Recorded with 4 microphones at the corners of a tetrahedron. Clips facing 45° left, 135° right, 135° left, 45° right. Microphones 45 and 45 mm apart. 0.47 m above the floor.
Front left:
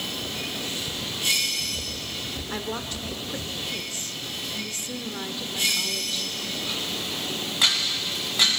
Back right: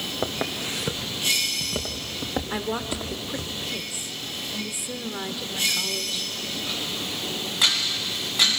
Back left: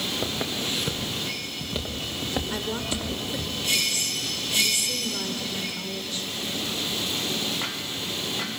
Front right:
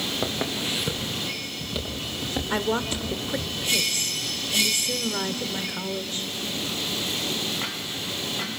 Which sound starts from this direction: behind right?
Footsteps, at 0.2 s.